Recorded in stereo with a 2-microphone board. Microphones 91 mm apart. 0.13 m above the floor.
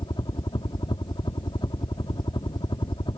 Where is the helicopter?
55° left (ahead or behind); by 3.2 s 60° left (ahead or behind).